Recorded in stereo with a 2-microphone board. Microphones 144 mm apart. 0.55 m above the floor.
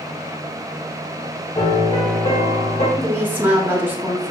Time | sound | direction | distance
1.6 | a piano | 45° left (ahead or behind) | 1.8 m
3.0 | a woman speaking | 10° right (ahead or behind) | 1.0 m